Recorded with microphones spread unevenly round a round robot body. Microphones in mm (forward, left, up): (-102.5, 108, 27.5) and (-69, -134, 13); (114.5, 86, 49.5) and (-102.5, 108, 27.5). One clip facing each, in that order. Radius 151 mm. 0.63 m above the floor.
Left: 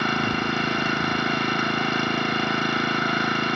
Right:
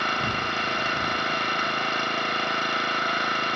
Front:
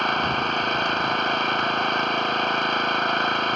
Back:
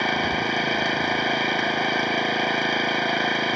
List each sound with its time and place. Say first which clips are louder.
0.0 s an engine running: left 7 dB, back 2 dB; 95° left